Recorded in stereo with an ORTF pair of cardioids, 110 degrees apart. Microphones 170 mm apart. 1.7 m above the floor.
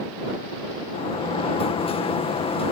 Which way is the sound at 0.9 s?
35° left.